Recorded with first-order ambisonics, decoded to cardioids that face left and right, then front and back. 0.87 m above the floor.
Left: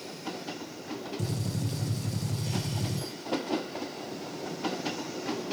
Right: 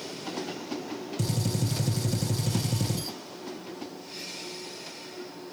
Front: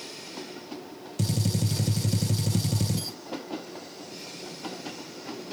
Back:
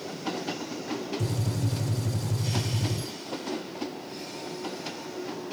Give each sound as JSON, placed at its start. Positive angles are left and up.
{"t": 1.2, "sound": "a gunshot", "azimuth_deg": -30, "distance_m": 0.8}